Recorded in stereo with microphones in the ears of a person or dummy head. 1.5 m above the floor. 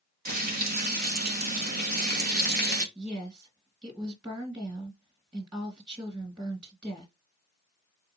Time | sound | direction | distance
0.2 | frying | 50° right (ahead or behind) | 0.8 m
3.0 | a woman speaking | 15° right (ahead or behind) | 1.7 m